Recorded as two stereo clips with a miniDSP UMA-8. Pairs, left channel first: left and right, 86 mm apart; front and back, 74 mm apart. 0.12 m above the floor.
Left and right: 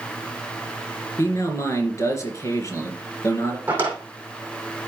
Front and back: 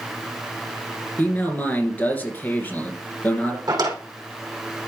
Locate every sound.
1.2 s a man speaking: 60° left, 2.5 m
3.7 s a drawer: 160° right, 3.5 m